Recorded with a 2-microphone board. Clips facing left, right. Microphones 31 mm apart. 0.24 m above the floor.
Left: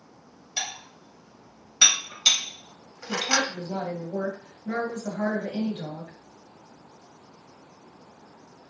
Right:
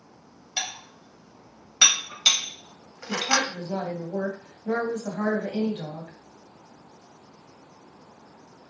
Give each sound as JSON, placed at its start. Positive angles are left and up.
{"t": 0.6, "sound": "dishes clattering", "side_deg": -15, "distance_m": 0.6}
{"t": 3.1, "sound": "a woman speaking", "side_deg": -35, "distance_m": 1.2}